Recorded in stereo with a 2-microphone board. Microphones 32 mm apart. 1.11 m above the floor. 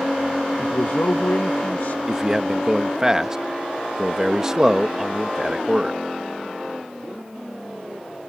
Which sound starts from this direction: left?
A man speaking, at 0.6 s.